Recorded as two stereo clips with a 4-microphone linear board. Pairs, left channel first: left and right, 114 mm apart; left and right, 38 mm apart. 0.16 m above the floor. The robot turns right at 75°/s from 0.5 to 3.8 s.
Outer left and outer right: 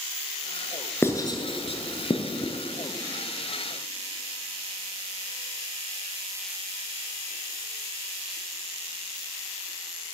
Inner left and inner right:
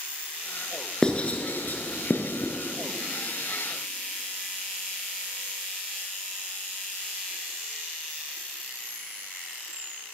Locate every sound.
1.0 s writing: 20° left (ahead or behind), 0.8 m; by 2.5 s 40° left (ahead or behind), 0.8 m